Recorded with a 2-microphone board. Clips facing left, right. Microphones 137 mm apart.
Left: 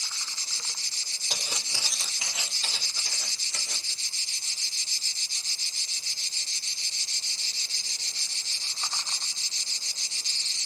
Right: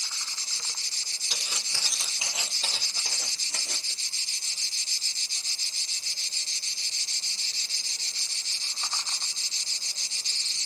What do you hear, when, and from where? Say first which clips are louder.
1.3 s footsteps: left 3 dB; 50° left (ahead or behind), 0.9 m; by 3.9 s 60° right (ahead or behind), 2 m